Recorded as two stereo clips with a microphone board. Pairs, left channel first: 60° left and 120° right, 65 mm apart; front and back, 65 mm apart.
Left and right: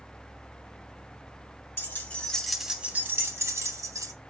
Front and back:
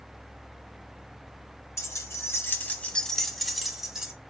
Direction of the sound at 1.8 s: 20° left.